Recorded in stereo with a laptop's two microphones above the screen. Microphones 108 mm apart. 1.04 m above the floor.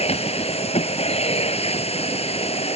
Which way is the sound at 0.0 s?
70° left (ahead or behind).